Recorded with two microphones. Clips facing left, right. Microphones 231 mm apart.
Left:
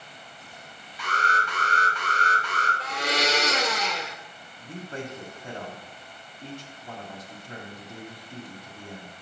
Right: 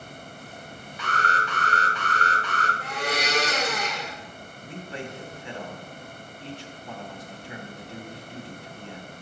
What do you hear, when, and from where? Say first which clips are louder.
1.0 s an alarm: right 1 dB; 10° left (ahead or behind), 2 m
2.8 s a blender: left 2 dB; 85° left, 1.6 m
4.6 s a man speaking: left 1 dB; 45° left (ahead or behind), 2.5 m